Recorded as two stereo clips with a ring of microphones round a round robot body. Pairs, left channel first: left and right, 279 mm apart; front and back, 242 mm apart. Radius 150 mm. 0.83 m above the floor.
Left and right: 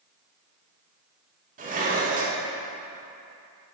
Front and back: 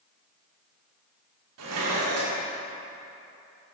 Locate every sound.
1.6 s dishes clattering: 150° right, 1.3 m